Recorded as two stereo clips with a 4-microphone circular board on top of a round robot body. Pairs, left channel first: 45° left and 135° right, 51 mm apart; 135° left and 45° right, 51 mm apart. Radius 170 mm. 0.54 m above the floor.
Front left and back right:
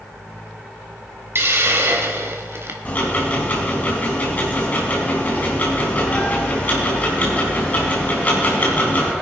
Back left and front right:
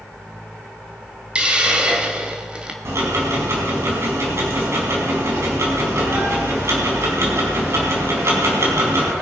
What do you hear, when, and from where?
1.4 s a hiss: 110° right, 2.5 m
2.9 s ticking: 15° right, 4 m